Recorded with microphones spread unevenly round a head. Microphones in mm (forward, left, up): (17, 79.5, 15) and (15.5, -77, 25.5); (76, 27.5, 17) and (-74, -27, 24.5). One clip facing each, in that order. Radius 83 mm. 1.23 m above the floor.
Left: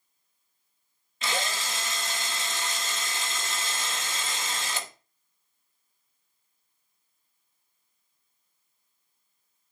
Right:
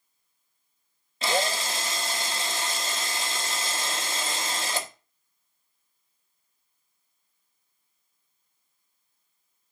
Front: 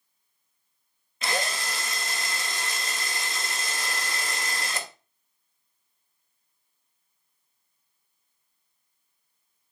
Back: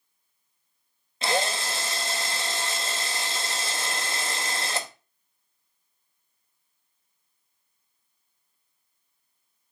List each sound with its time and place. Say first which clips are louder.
1.2 s a drill: right 6 dB, back 4 dB; 120° right, 0.6 m